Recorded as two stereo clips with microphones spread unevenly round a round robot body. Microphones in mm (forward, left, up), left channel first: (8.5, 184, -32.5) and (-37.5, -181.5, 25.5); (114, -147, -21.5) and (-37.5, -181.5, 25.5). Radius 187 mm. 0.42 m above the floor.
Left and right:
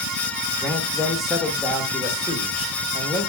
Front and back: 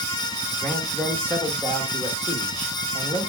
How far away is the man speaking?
About 1.4 m.